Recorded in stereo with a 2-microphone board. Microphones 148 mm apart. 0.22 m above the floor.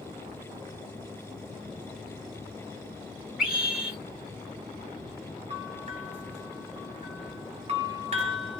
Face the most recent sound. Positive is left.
turn(degrees=-45)  # may be behind; listen again after turning